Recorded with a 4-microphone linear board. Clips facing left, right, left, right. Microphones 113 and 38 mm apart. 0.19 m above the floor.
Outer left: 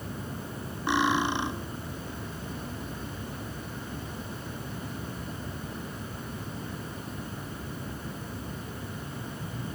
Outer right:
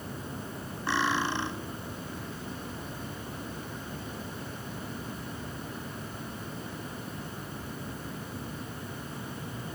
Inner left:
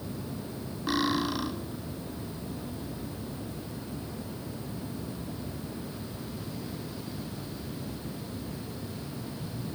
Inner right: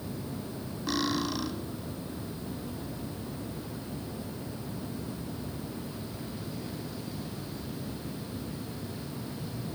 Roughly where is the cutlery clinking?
Centre.